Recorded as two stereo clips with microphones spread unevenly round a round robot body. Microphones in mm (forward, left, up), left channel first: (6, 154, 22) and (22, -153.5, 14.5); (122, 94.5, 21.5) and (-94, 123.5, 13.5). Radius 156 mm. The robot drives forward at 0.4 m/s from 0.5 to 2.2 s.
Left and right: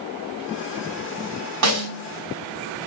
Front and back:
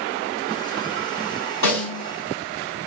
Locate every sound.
1.6 s a snare drum: 130° right, 1.6 m; by 2.0 s 135° right, 1.7 m